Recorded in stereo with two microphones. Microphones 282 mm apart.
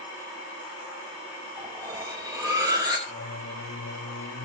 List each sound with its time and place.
1.6 s cutlery clinking: 10° right (ahead or behind), 2 m
3.1 s singing: 65° left (ahead or behind), 1.8 m